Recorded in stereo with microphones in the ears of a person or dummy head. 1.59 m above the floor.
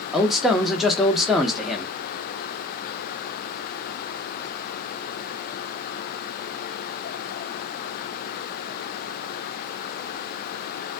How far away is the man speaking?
About 0.7 m.